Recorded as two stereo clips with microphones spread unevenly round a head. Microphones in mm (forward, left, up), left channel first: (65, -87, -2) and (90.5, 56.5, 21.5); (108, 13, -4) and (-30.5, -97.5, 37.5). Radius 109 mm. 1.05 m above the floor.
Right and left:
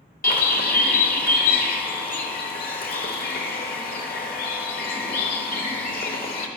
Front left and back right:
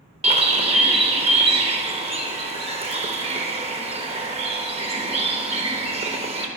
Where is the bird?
115° right, 1.0 m.